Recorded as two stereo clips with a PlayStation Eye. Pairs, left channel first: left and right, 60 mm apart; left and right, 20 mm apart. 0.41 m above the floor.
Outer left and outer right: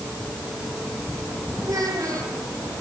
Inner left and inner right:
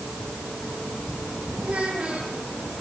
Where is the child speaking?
75° right (ahead or behind), 8 m.